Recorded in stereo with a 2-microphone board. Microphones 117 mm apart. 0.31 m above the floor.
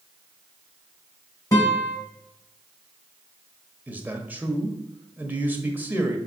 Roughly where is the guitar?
Left.